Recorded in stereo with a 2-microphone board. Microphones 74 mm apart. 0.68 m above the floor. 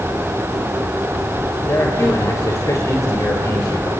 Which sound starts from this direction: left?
A man speaking, at 1.7 s.